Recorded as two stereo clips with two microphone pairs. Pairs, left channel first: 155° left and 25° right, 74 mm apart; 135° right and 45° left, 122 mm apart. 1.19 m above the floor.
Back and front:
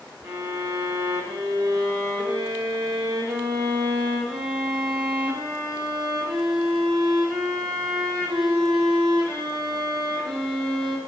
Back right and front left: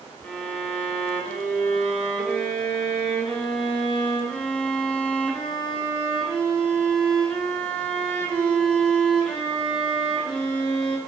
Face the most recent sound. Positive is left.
turn(degrees=-55)